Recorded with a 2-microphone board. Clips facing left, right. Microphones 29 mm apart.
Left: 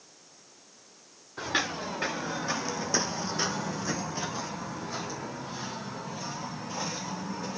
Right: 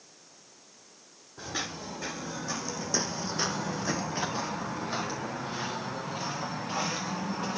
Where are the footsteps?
55° left (ahead or behind), 2.5 m; by 7.6 s 60° right (ahead or behind), 5.5 m.